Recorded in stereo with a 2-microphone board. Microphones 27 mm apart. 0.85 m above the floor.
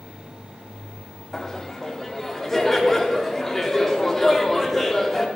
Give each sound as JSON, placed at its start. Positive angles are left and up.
{"t": 1.3, "sound": "laughter", "side_deg": 10, "distance_m": 2.5}